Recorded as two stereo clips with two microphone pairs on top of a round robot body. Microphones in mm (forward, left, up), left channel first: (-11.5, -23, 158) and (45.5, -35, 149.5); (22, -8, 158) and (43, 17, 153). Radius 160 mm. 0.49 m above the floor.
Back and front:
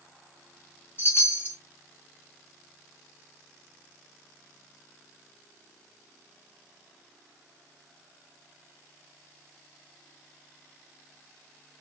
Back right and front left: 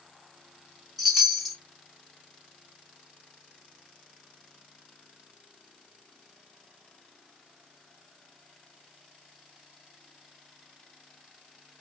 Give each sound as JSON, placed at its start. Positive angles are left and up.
{"t": 1.0, "sound": "a chime", "azimuth_deg": 125, "distance_m": 1.5}